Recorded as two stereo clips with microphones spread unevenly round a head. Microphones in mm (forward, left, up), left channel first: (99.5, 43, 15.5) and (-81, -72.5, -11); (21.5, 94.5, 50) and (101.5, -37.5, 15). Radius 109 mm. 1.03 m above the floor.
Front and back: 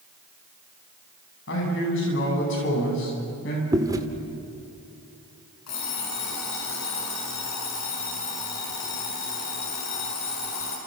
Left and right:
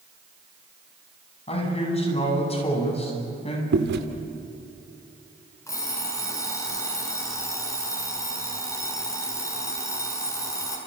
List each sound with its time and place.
1.5 s a man speaking: 70° left, 9 m
3.7 s chewing: 70° right, 2.0 m
5.7 s an alarm clock: 50° left, 8 m